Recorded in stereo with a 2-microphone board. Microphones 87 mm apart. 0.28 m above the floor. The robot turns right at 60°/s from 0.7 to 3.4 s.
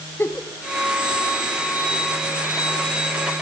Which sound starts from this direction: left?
A giggle, at 0.2 s.